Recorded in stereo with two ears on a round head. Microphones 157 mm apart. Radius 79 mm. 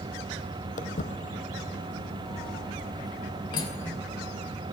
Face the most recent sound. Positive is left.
turn(degrees=30)  # may be behind; listen again after turning